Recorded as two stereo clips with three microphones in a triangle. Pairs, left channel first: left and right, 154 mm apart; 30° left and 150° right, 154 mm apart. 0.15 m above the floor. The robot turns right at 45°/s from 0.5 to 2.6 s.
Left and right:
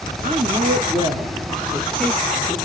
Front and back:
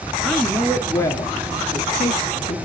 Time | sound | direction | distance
0.2 | a woman speaking | 60° right | 2 m